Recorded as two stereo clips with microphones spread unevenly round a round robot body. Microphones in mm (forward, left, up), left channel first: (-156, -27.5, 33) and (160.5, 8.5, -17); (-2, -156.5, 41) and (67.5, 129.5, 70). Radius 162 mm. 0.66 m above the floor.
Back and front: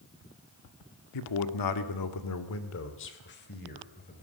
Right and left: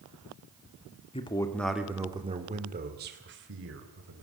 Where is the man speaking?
170° right, 2 m; by 4.2 s 120° left, 4 m.